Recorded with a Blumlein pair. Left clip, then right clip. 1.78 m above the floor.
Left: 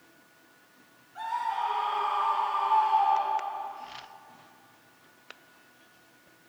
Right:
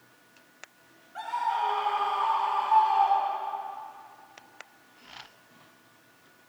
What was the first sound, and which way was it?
A scream, 25° right.